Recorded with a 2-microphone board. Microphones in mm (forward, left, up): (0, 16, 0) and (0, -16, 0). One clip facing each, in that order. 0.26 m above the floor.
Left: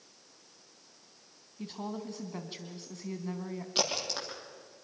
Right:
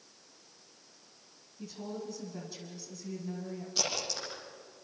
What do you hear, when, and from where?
1.6 s a woman speaking: 50° left (ahead or behind), 2.5 m
3.8 s a crack: 55° left (ahead or behind), 8.5 m